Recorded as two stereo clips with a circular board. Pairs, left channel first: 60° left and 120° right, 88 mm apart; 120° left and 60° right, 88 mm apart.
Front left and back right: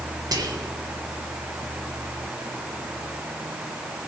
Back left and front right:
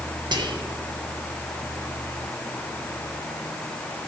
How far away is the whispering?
About 1.1 m.